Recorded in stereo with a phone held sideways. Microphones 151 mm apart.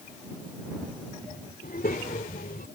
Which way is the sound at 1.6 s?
80° left.